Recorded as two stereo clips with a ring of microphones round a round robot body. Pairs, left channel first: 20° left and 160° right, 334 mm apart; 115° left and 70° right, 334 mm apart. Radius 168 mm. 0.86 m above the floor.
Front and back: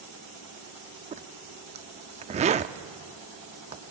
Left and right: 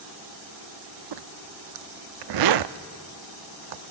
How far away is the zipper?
About 0.5 m.